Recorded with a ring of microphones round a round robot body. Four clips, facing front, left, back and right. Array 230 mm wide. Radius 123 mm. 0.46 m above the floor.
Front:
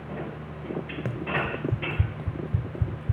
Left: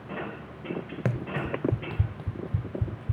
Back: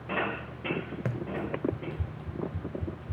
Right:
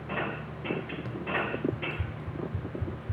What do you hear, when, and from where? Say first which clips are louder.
1.1 s running footsteps: left 2 dB, front 5 dB; 90° left, 0.5 m; by 3.1 s 20° left, 2 m